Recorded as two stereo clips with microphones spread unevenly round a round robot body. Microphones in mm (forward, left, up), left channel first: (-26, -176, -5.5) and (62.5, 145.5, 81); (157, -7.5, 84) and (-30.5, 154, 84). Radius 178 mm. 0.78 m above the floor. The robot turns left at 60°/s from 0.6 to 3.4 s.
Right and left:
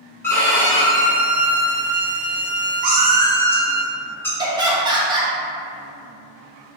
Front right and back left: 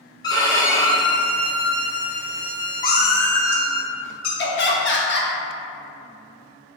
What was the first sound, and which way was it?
A violin, 85° right.